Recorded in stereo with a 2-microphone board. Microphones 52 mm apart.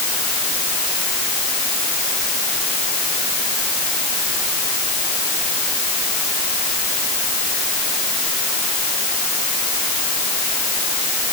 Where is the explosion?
I don't hear an explosion.